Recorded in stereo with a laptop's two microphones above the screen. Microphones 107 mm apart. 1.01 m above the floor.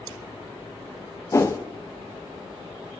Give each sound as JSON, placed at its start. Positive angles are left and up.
{"t": 1.3, "sound": "a whoosh", "side_deg": 30, "distance_m": 0.5}